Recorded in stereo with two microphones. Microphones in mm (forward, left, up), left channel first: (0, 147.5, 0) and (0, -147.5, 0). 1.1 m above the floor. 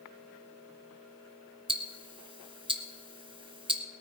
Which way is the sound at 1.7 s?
15° right (ahead or behind).